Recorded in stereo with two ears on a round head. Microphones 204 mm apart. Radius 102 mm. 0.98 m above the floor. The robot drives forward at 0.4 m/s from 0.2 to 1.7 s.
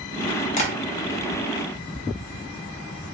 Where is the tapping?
30° left (ahead or behind), 1.2 m.